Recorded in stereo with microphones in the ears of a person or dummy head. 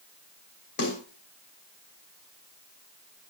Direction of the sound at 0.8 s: 60° left (ahead or behind).